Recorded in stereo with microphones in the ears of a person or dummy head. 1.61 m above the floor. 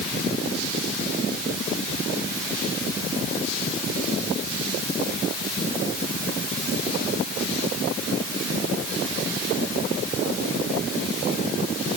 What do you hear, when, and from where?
Only background noise.